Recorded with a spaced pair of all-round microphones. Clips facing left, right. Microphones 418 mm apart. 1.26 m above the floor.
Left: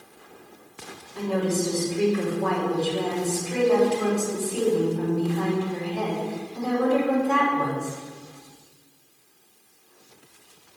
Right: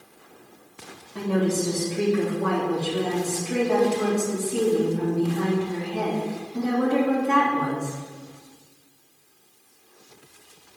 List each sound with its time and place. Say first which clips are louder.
1.1 s a woman speaking: right 1 dB; 75° right (ahead or behind), 3 m